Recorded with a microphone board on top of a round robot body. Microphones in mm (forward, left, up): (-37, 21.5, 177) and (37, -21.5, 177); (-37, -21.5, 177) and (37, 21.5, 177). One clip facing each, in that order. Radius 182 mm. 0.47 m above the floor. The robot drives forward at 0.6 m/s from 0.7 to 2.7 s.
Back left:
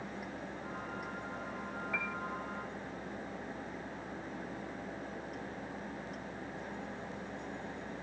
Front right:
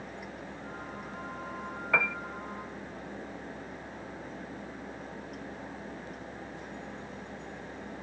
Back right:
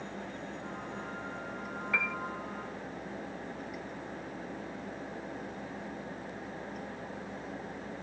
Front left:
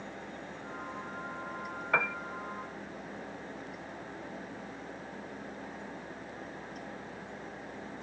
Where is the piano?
10° right.